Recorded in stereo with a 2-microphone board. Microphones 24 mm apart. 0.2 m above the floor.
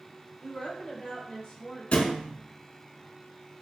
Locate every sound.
0.4 s a woman speaking: 35° left (ahead or behind), 1.2 m
1.9 s a thud: 65° left (ahead or behind), 0.5 m